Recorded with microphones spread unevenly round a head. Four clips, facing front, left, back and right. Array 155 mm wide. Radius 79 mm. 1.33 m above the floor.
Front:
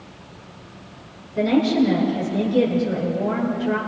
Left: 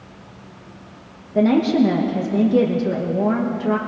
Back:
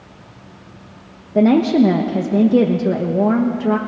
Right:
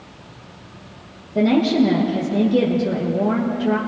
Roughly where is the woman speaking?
Behind.